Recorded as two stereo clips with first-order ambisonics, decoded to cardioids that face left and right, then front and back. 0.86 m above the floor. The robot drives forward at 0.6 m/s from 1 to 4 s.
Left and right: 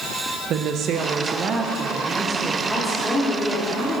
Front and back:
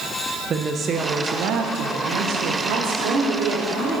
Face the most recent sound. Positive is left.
turn(degrees=175)